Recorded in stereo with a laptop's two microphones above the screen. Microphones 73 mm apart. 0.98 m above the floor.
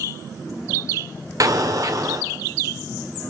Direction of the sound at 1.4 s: 50° right (ahead or behind).